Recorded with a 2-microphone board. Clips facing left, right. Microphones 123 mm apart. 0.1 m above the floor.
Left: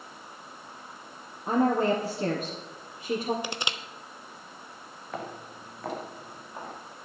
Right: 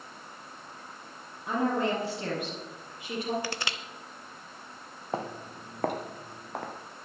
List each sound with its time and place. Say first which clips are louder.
1.5 s a woman speaking: left 4 dB; 35° left (ahead or behind), 2.5 m
3.4 s crushing: left 1 dB; 20° left (ahead or behind), 0.7 m
5.1 s footsteps: right 3 dB; 30° right (ahead or behind), 1.9 m; by 6.7 s 85° right, 3 m